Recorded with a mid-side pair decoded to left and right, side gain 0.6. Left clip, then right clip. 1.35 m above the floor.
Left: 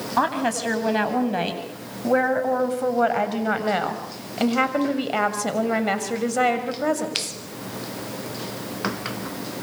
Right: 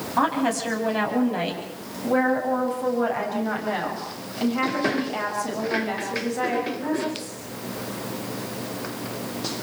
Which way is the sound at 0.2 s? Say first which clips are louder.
Even; 20° left.